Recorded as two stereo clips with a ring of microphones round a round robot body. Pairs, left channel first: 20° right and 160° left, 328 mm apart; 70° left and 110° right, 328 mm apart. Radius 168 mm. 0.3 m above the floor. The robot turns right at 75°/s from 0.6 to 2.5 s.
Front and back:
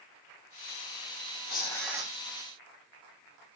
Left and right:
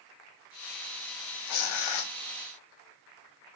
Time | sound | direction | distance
1.5 | tearing paper | 40° left | 0.5 m